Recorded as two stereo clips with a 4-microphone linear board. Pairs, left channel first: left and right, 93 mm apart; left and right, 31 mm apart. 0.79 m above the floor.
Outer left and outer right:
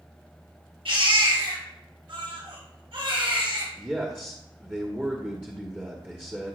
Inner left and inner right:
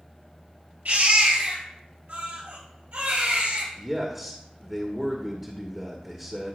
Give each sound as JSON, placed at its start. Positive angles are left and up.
{"t": 0.8, "sound": "a baby crying", "side_deg": -70, "distance_m": 5.0}
{"t": 3.8, "sound": "a man speaking", "side_deg": -15, "distance_m": 1.4}